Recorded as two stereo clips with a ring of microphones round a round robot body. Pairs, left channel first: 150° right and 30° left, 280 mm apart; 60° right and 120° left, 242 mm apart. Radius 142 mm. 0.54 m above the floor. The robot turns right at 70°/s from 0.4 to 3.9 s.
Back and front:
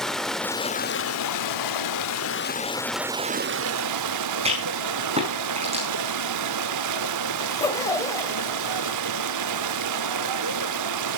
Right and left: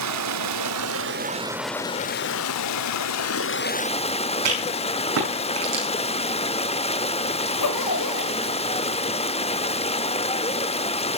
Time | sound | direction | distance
0.0 | running water | 120° left | 0.8 m
4.5 | a rattle | 100° left | 5.5 m
7.4 | a zipper | 70° right | 1.1 m